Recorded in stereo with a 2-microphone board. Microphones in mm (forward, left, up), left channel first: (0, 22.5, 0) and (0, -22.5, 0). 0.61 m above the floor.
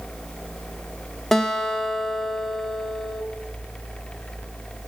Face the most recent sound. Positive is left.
turn(degrees=5)  # may be behind; listen again after turning